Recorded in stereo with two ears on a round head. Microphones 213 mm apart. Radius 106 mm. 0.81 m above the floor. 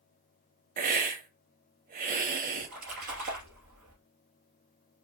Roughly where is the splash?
Right.